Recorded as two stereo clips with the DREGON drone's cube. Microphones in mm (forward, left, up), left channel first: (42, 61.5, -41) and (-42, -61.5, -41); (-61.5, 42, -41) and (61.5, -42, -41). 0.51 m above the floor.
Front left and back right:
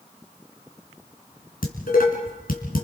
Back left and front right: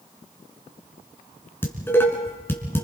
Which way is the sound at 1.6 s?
70° left.